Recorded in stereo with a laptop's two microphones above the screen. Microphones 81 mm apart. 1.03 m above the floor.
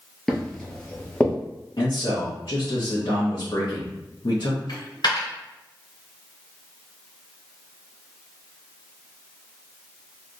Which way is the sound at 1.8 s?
70° left (ahead or behind).